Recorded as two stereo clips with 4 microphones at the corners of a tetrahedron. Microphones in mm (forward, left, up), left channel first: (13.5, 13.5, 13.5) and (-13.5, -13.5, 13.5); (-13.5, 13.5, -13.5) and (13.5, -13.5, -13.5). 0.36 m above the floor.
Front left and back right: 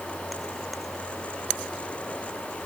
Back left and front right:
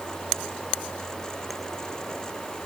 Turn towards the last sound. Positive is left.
No sound to turn to.